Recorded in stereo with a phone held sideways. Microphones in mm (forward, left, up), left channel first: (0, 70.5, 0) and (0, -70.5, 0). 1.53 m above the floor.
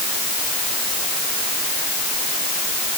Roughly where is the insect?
No insect in this recording.